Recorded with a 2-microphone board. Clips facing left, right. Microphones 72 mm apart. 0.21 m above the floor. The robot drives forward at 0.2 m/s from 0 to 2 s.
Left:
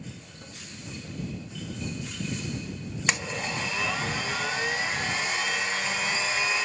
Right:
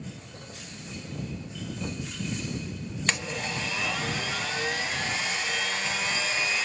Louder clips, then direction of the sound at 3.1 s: Left 1 dB; 10° left (ahead or behind).